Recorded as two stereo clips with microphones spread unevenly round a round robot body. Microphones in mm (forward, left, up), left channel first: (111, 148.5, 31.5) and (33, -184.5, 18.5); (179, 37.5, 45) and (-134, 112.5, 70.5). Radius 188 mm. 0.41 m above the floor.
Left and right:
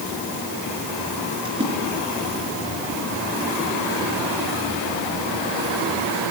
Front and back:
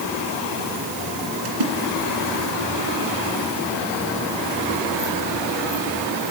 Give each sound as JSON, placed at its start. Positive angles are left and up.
{"t": 1.4, "sound": "a splash", "azimuth_deg": 180, "distance_m": 3.0}